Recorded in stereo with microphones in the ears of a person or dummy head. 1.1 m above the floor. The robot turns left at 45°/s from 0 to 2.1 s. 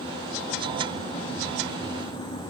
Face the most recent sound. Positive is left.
No sound to turn to.